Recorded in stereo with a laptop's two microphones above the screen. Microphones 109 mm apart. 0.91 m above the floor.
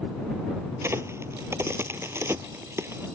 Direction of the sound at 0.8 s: 25° right (ahead or behind).